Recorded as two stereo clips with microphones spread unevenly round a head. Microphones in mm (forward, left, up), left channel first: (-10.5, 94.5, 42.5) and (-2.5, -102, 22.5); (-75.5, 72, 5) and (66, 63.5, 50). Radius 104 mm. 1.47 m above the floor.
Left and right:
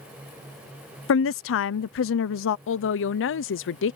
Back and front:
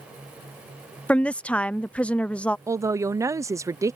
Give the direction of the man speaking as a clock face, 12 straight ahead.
9 o'clock.